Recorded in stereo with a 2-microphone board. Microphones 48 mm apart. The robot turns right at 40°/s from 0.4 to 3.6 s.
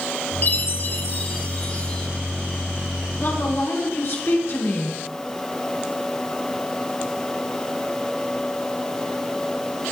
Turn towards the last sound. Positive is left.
turn(degrees=65)  # may be behind; listen again after turning